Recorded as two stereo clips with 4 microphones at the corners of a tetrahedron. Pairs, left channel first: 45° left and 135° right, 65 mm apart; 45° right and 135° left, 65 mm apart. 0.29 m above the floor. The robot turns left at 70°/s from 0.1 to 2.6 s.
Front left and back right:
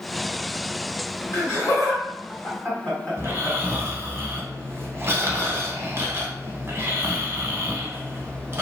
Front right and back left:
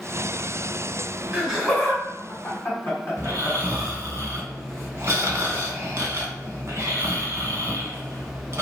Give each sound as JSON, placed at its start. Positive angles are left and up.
{"t": 1.3, "sound": "laughter", "azimuth_deg": 70, "distance_m": 1.7}
{"t": 3.2, "sound": "snoring", "azimuth_deg": 175, "distance_m": 0.6}